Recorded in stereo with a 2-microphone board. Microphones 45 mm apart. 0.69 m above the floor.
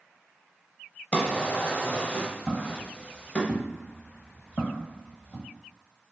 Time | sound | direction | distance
1.1 | a drawer | 30° left (ahead or behind) | 0.6 m
2.5 | footsteps | 15° right (ahead or behind) | 1.3 m